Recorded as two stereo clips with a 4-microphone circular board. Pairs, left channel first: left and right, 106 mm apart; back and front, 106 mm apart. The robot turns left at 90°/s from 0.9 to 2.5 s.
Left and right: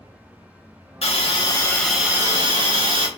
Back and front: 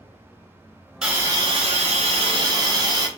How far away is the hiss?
About 0.6 m.